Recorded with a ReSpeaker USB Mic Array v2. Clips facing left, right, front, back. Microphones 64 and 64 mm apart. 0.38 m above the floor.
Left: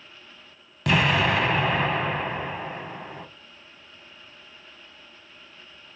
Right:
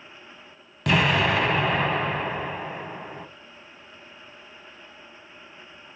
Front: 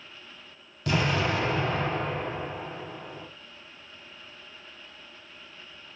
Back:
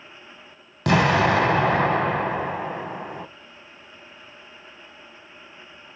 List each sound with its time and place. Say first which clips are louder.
0.9 s an explosion: even, back 8 dB; straight behind, 0.5 m